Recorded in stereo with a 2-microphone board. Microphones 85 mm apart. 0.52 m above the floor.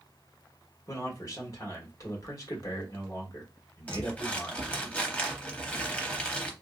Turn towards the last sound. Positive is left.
turn(degrees=15)  # may be behind; listen again after turning